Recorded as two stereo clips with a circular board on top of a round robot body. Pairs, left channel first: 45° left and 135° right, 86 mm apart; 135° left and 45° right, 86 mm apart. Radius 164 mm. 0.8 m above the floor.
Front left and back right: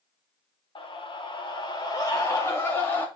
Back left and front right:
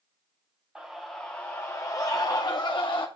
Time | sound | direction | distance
0.8 | a scream | 40° left | 1.6 m